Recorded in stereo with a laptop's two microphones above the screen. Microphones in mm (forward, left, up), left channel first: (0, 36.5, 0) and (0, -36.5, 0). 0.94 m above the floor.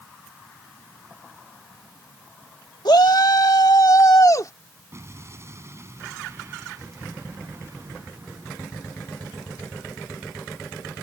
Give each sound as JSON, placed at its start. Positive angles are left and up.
{"t": 2.9, "sound": "a shout", "side_deg": 70}
{"t": 4.9, "sound": "an explosion", "side_deg": -35}